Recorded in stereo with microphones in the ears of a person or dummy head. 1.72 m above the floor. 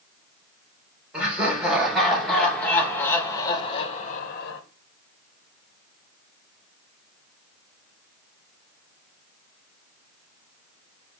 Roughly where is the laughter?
Centre.